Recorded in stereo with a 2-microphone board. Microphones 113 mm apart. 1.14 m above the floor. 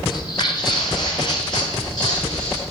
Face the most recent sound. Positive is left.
turn(degrees=35)  # may be behind; listen again after turning